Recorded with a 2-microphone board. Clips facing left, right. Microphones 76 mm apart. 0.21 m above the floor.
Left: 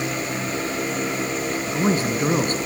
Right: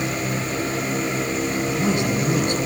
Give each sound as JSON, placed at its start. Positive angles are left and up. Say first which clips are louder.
{"t": 1.6, "sound": "a man speaking", "louder": "left 2 dB", "side_deg": 40, "distance_m": 2.5}